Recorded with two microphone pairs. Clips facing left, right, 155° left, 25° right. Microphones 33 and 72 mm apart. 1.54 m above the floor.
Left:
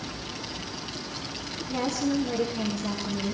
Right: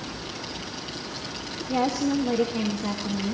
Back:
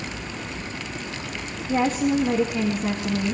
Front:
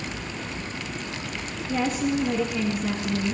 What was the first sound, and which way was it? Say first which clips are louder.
A woman speaking: right 3 dB, back 4 dB; 145° right.